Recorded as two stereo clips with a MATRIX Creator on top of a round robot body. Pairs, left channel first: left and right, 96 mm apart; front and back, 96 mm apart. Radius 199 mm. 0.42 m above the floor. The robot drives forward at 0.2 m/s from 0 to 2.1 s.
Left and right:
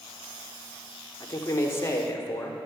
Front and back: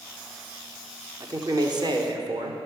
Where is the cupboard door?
No cupboard door in this recording.